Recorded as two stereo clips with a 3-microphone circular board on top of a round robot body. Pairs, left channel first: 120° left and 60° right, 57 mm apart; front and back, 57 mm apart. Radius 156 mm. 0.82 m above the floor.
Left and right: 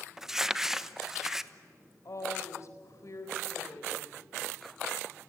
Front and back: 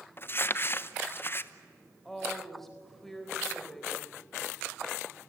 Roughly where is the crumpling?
Ahead.